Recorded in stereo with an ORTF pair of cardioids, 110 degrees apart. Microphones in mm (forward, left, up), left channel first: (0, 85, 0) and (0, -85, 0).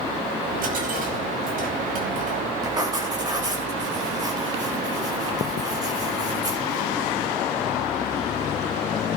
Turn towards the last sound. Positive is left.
turn(degrees=-25)